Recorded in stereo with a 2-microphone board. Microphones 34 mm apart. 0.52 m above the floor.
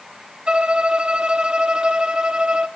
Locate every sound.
0.5 s a violin: 30° right (ahead or behind), 0.5 m